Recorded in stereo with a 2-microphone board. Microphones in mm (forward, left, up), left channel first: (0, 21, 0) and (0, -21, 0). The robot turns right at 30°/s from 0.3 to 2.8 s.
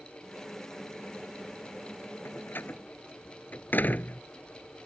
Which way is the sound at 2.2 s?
65° left (ahead or behind).